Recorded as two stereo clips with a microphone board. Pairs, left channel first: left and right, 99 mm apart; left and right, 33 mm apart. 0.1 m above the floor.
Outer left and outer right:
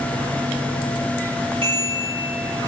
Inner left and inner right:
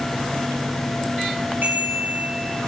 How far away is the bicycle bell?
About 7.5 m.